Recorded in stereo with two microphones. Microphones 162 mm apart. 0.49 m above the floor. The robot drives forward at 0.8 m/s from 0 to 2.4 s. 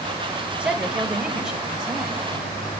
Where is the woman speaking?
5° right (ahead or behind), 2.0 m.